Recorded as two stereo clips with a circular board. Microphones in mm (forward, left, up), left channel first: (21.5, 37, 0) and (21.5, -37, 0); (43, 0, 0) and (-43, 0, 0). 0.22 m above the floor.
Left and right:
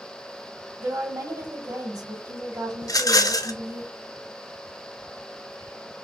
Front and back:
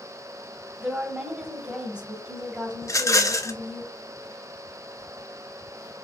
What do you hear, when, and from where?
0.8 s a woman speaking: 110° right, 1.3 m
2.8 s a rattle: 50° left, 0.5 m